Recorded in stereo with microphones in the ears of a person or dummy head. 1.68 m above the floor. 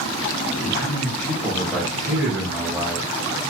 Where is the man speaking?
15° left (ahead or behind), 2 m; by 3.1 s 15° right (ahead or behind), 2.5 m.